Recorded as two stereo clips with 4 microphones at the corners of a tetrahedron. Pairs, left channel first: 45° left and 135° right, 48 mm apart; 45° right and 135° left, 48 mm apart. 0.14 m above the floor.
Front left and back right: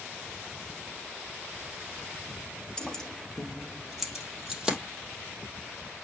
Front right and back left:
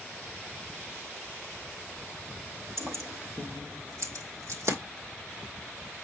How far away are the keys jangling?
About 2.0 m.